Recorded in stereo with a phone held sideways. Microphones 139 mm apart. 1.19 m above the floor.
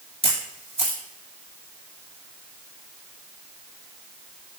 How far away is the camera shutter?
About 1.4 m.